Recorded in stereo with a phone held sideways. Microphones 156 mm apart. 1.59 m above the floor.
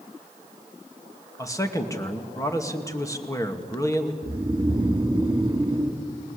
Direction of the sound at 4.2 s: 25° right (ahead or behind).